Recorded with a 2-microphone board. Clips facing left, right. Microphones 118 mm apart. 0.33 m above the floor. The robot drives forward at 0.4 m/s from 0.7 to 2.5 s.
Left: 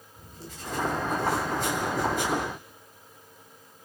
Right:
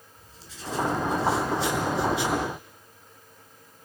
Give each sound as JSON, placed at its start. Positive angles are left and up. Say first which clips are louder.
{"t": 0.2, "sound": "writing", "louder": "left 3 dB", "side_deg": 50, "distance_m": 5.5}